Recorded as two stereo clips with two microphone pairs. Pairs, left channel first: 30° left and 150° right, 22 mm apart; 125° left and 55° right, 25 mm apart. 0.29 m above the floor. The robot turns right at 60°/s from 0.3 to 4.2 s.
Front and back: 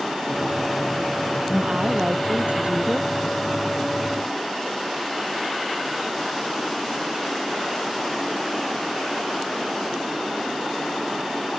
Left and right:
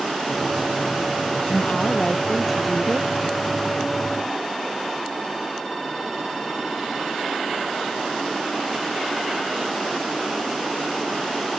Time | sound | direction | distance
1.5 | a woman speaking | 150° left | ?